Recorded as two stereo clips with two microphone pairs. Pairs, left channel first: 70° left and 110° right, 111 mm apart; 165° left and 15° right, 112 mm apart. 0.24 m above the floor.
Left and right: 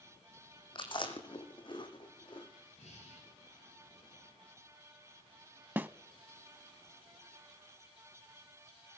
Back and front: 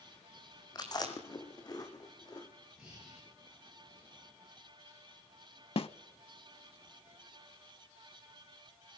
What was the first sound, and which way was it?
Chewing, 115° left.